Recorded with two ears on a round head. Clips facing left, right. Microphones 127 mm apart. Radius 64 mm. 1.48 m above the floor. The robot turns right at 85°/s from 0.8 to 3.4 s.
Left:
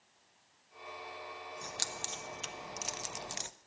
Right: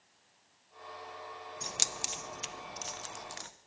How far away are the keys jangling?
About 0.5 m.